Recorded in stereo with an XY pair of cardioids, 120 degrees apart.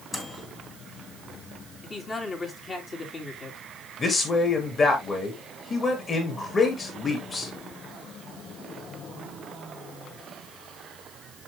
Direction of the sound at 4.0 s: 35° left.